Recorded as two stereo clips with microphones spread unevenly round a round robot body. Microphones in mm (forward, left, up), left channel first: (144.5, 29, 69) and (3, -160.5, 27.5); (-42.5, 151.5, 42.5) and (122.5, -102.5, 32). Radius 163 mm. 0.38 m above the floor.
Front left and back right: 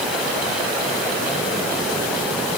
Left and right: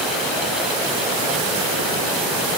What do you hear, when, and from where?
Only background noise.